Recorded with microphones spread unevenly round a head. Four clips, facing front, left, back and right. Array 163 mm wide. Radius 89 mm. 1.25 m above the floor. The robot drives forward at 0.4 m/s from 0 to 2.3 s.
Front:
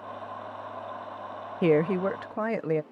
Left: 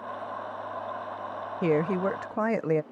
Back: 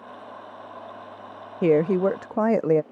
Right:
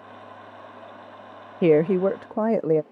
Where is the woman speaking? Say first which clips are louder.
Right 7 dB, back 4 dB; 110° right; by 2.8 s 140° right.